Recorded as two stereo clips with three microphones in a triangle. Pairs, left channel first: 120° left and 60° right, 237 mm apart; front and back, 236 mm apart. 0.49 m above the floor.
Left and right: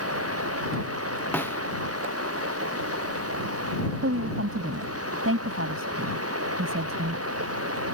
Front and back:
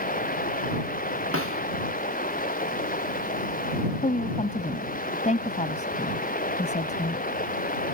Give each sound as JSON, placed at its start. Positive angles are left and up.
{"t": 0.0, "sound": "running water", "azimuth_deg": -55}
{"t": 1.3, "sound": "a snare drum", "azimuth_deg": -160}
{"t": 4.0, "sound": "a woman speaking", "azimuth_deg": -55}